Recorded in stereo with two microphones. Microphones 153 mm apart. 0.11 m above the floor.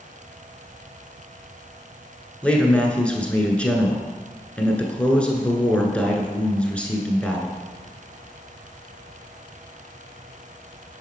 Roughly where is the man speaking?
Centre.